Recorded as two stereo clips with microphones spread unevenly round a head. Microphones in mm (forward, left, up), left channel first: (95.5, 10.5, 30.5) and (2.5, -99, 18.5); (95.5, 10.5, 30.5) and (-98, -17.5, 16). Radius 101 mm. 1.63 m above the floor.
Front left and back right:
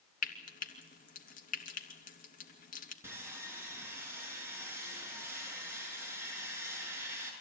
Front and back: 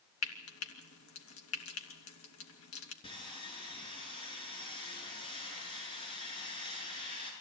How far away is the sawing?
About 9 m.